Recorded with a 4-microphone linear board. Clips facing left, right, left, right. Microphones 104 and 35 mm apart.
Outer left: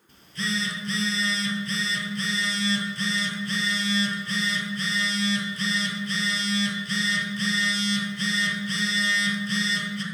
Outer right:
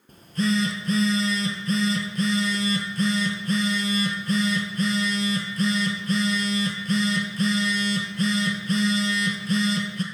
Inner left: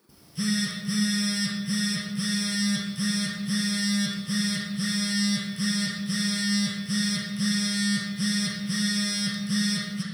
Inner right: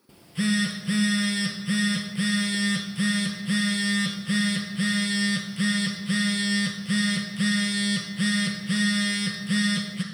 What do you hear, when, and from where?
0.1 s a phone buzzing: 45° right (ahead or behind), 1.0 m